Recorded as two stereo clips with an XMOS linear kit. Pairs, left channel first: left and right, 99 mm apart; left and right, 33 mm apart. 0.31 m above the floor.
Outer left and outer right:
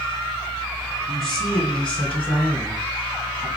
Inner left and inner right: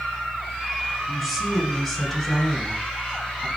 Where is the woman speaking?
Centre (ahead or behind), 1.6 m; by 3.5 s 20° left (ahead or behind), 3 m.